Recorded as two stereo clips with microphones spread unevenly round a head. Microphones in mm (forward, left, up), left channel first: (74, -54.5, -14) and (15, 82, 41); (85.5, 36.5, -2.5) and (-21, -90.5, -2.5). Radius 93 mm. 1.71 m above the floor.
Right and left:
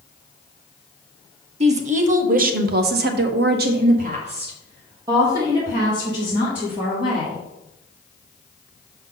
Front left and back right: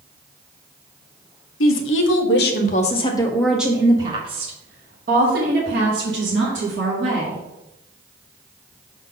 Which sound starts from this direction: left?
A woman speaking, at 1.6 s.